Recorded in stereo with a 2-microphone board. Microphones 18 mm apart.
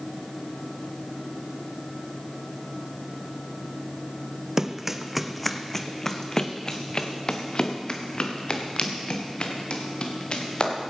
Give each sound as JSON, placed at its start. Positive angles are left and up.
{"t": 4.6, "sound": "running footsteps", "side_deg": -30, "distance_m": 0.8}